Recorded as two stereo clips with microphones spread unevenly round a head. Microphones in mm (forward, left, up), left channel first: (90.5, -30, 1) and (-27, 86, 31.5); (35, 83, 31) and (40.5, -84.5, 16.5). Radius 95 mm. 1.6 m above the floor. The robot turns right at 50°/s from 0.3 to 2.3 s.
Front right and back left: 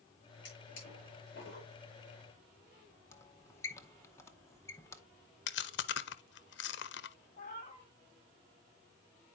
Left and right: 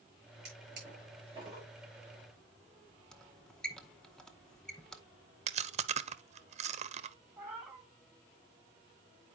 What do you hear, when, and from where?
0.5 s a drawer: 75° right, 8 m; by 1.7 s 15° right, 8 m
3.1 s a squeak: 30° left, 0.7 m
5.5 s chewing: 40° right, 0.7 m
7.4 s a cat meowing: 5° right, 2 m